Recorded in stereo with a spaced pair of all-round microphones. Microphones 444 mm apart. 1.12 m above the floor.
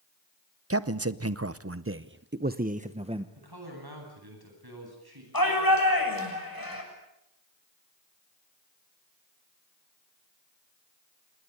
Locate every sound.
0.7 s a man speaking: 30° right (ahead or behind), 1.0 m; by 3.2 s 10° right (ahead or behind), 1.1 m
3.4 s a man speaking: 55° right (ahead or behind), 9.5 m
5.3 s a shout: 50° left (ahead or behind), 7 m